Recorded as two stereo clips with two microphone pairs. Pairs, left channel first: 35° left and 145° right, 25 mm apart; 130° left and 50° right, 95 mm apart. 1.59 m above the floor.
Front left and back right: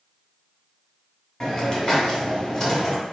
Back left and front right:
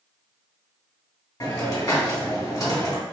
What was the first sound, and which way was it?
A hiss, 95° left.